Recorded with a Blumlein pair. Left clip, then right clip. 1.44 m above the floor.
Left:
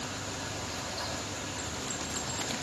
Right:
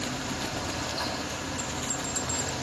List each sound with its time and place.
0.0 s a fan: 15° right, 3 m
1.6 s a bell: 70° right, 0.9 m